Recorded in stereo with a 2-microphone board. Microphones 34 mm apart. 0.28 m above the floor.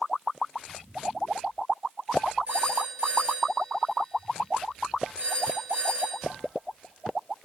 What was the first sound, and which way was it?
A phone ringing, 35° right (ahead or behind).